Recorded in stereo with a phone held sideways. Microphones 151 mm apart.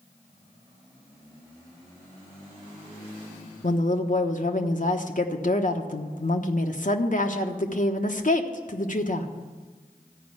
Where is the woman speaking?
60° left (ahead or behind), 1.2 m.